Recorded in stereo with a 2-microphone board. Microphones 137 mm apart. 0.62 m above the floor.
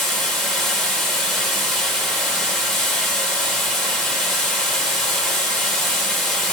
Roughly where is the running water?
Centre.